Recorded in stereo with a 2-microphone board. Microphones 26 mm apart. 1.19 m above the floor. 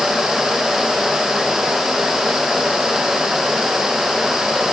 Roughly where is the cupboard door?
I don't hear a cupboard door.